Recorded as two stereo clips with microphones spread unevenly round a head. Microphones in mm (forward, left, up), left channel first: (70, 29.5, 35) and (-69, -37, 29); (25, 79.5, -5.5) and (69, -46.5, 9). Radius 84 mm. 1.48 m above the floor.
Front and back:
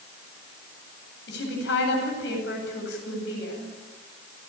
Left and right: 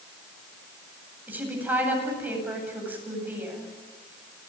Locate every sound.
1.3 s a woman speaking: 5° left, 9 m